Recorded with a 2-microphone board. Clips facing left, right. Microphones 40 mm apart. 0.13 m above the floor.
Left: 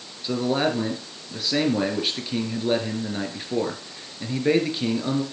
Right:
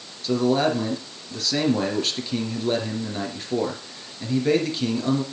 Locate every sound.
0.2 s a man speaking: 15° left (ahead or behind), 2.5 m